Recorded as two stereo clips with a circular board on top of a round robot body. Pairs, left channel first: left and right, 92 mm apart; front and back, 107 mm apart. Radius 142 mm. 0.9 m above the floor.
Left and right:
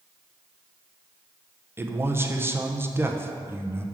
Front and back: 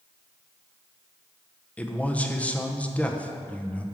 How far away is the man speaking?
About 0.8 m.